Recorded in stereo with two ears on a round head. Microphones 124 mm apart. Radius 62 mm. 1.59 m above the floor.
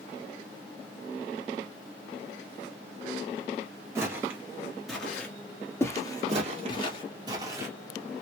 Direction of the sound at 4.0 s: 20° right (ahead or behind).